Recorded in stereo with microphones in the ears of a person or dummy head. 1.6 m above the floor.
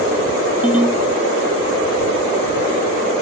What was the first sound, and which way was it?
A ringtone, 5° right (ahead or behind).